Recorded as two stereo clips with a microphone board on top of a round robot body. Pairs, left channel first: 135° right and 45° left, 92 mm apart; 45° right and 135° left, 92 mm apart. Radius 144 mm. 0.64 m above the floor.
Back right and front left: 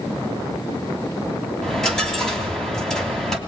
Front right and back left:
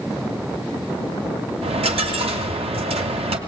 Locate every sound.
1.6 s a dropped coin: 140° left, 2.5 m